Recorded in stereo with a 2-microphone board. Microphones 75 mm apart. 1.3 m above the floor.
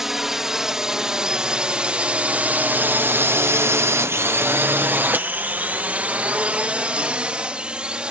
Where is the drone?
5° right (ahead or behind); by 8.1 s 10° right (ahead or behind).